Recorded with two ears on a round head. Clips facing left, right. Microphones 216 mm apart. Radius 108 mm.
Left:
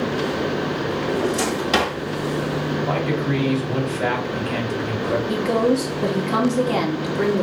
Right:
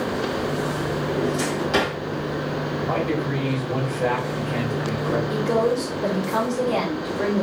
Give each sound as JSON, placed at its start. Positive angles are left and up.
{"t": 1.1, "sound": "a drawer", "side_deg": 70, "distance_m": 1.9}
{"t": 2.9, "sound": "a man speaking", "side_deg": 80, "distance_m": 2.5}
{"t": 5.3, "sound": "a woman speaking", "side_deg": 70, "distance_m": 2.0}